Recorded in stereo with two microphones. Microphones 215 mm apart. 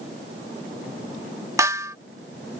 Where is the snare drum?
15° right (ahead or behind).